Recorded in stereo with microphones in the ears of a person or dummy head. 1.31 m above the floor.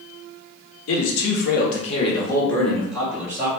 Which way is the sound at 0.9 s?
70° left (ahead or behind).